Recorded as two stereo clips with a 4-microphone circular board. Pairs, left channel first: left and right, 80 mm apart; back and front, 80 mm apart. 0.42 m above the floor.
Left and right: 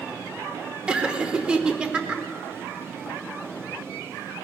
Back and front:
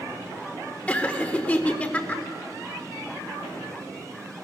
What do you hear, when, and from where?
0.9 s laughter: 140° right, 0.9 m